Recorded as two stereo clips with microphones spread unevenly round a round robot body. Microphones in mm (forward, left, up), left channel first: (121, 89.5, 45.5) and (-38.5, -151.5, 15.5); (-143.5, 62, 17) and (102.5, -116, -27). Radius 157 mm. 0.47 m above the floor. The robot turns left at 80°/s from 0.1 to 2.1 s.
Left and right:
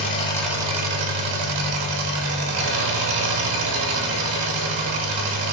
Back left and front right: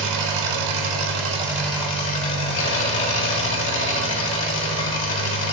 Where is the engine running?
5° right, 2 m; by 5.5 s 165° right, 2 m.